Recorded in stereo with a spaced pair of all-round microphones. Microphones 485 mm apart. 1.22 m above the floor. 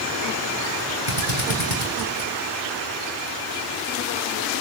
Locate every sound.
1.1 s a drill: 80° left, 8 m